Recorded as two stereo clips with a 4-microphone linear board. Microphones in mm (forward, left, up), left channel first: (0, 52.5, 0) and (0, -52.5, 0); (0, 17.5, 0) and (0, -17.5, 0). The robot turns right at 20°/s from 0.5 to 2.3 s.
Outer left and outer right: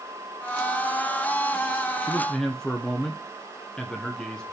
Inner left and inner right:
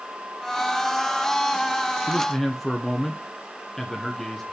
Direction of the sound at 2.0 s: 15° left (ahead or behind).